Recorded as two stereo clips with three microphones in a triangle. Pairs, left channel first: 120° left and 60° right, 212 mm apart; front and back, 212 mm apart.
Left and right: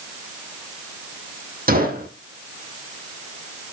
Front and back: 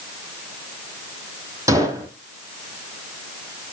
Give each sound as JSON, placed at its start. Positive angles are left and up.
{"t": 1.7, "sound": "a gunshot", "azimuth_deg": -105, "distance_m": 2.5}